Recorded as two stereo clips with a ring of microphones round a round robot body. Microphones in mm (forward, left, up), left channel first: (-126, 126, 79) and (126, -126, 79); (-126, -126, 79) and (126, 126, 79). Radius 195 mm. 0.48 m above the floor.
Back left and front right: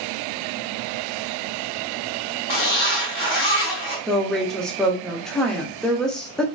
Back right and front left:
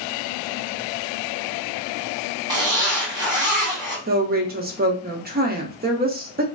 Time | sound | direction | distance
2.5 | a zipper | 120° left | 1.9 m
4.1 | a woman speaking | 50° left | 0.7 m